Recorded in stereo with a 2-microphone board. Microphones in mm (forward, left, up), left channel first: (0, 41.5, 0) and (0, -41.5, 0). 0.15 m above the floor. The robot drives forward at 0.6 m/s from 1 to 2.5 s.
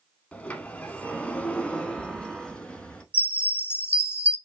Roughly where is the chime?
Left.